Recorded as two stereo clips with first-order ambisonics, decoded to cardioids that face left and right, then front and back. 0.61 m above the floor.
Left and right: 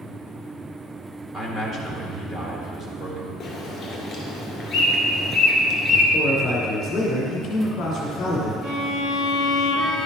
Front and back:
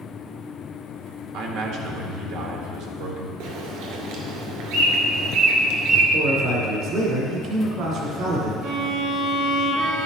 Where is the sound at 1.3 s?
165° right, 1.7 m.